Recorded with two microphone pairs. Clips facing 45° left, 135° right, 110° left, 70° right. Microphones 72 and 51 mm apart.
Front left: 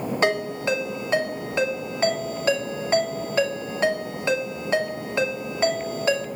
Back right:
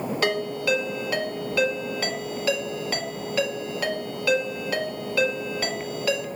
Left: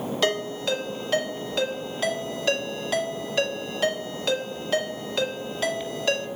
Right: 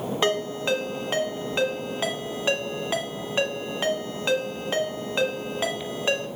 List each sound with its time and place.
0.2 s a ringtone: 10° right, 1.1 m